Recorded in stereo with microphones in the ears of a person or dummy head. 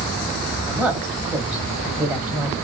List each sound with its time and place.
0.7 s a woman speaking: centre (ahead or behind), 1.1 m